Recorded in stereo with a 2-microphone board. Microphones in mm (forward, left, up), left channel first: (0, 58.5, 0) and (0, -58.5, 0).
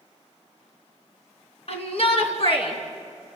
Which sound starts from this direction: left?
A shout, at 1.7 s.